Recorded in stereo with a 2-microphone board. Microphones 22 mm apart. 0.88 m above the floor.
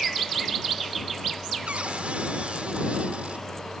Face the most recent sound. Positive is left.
turn(degrees=-70)  # may be behind; listen again after turning